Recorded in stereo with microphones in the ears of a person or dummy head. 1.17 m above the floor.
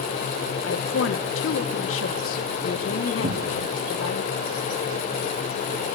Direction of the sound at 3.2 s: 30° right (ahead or behind).